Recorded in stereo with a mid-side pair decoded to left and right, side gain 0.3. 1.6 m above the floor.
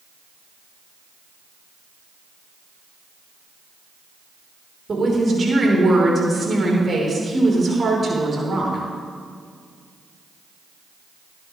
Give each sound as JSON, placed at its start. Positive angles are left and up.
{"t": 4.9, "sound": "a woman speaking", "azimuth_deg": -45, "distance_m": 6.0}